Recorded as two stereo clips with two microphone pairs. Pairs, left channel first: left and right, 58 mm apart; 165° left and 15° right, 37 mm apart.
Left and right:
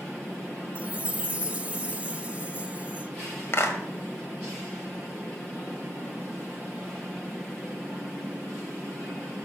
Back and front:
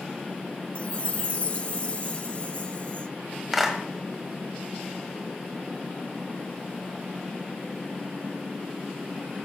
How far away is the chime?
About 0.5 m.